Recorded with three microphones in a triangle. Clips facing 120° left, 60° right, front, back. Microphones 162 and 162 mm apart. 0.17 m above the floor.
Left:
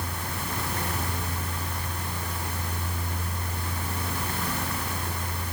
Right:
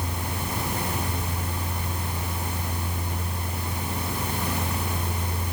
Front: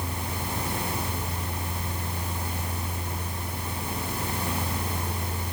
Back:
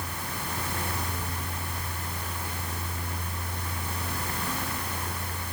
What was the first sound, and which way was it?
Only background noise.